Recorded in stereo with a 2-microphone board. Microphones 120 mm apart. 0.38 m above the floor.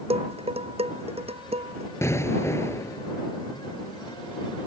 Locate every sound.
0.1 s dishes clattering: 55° right (ahead or behind)
2.0 s an explosion: 20° left (ahead or behind)